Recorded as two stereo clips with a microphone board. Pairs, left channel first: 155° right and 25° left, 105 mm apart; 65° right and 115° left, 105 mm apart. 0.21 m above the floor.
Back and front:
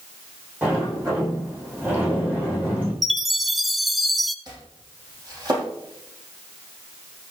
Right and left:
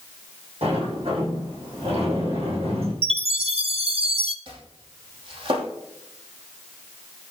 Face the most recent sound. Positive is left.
turn(degrees=75)